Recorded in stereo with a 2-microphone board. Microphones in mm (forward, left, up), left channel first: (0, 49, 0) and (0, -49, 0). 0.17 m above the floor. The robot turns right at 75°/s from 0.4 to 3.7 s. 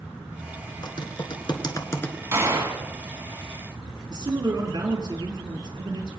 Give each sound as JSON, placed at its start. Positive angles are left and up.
{"t": 0.8, "sound": "typing on a keyboard", "side_deg": 50, "distance_m": 1.1}
{"t": 2.3, "sound": "a gunshot", "azimuth_deg": -120, "distance_m": 1.5}
{"t": 4.1, "sound": "a man speaking", "side_deg": -55, "distance_m": 3.5}